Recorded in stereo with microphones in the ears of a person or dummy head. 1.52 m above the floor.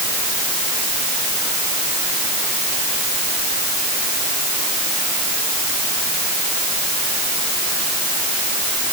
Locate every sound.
Only background noise.